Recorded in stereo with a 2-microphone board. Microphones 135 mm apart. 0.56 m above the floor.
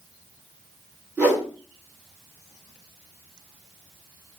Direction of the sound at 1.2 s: 10° right (ahead or behind).